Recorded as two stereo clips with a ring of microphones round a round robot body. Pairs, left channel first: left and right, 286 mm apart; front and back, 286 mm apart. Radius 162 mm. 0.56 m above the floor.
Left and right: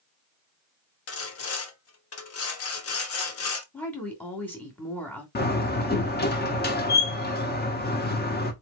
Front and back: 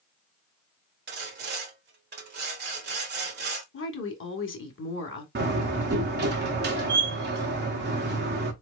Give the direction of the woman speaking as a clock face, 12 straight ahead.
12 o'clock.